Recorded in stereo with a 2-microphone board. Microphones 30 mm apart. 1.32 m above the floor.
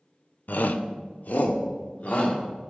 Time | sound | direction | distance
0.5 | a shout | 75° left (ahead or behind) | 0.6 m